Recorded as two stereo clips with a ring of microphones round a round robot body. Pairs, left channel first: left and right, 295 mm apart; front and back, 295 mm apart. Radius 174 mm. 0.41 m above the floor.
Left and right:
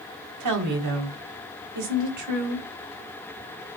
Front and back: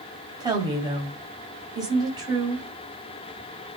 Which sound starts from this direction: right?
A woman speaking, at 0.4 s.